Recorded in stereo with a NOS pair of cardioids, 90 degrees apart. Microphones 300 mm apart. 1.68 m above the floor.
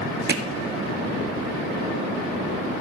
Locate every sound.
0.3 s hammering: 35° right, 1.1 m